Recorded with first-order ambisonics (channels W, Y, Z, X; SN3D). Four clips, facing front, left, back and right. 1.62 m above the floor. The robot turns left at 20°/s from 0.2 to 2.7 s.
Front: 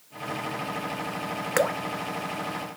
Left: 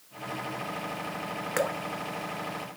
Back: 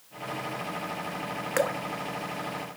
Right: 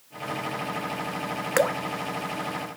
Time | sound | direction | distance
1.6 | dripping | 65° right | 0.5 m